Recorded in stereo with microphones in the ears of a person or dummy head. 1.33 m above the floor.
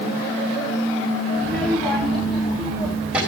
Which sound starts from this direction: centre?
A child speaking, at 1.4 s.